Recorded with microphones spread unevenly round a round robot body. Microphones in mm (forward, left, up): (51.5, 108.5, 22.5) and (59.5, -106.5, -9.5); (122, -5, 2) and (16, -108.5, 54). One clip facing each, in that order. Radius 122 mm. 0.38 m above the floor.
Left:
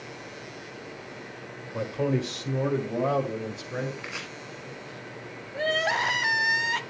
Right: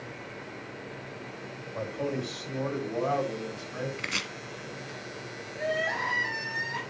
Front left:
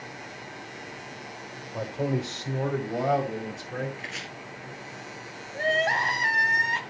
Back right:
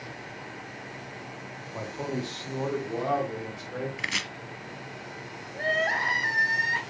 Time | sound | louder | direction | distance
1.7 | a man speaking | left 5 dB, front left 4 dB | 90° left | 1.6 m
4.0 | chopping | right 1 dB, back right 2 dB | 140° right | 1.2 m
5.5 | crying | left 3 dB, front left 3 dB | 100° left | 1.3 m